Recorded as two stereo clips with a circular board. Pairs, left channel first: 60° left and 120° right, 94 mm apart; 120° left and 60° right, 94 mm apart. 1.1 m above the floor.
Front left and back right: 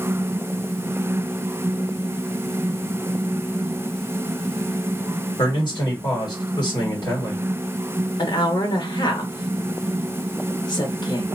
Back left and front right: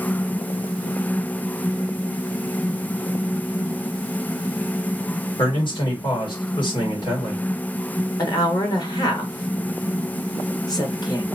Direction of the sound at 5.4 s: 95° left.